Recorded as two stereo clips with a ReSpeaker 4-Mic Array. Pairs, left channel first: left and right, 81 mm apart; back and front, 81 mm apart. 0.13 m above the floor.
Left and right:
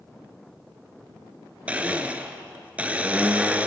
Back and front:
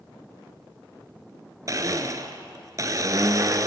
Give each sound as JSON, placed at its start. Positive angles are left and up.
{"t": 1.7, "sound": "a blender", "azimuth_deg": -20, "distance_m": 1.0}